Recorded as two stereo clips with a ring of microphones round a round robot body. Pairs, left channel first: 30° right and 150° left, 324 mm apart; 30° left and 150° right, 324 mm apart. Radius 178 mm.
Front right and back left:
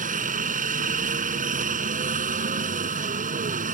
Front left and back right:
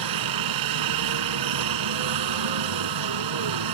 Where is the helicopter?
145° right.